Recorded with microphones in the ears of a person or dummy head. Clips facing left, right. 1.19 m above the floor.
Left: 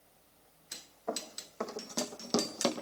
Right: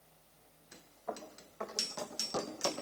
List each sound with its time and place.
1.1 s running footsteps: 70° left (ahead or behind), 4 m; by 2.8 s 65° left (ahead or behind), 3 m